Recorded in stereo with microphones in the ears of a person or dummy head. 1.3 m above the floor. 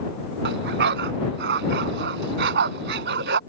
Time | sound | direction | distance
0.4 | a dog barking | 60° right (ahead or behind) | ?